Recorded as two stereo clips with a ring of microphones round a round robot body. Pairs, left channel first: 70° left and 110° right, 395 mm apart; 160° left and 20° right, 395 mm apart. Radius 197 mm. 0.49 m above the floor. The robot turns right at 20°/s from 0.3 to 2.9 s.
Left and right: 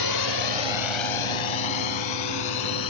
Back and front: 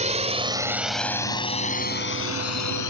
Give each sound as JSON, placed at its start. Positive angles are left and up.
{"t": 0.0, "sound": "a drone", "azimuth_deg": 50}